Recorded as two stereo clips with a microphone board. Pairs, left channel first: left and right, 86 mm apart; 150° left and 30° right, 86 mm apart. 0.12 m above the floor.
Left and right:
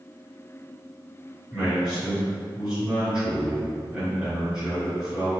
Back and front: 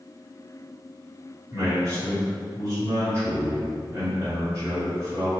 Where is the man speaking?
20° right, 1.8 m.